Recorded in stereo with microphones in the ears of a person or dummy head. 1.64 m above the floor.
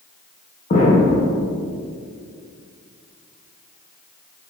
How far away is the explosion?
About 1.0 m.